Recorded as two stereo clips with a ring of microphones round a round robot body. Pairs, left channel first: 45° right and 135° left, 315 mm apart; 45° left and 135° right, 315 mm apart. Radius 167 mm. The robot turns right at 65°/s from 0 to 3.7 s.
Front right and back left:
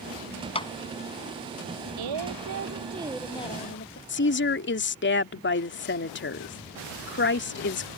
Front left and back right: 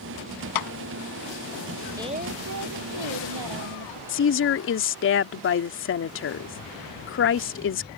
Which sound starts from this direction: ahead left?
A clap, at 0.6 s.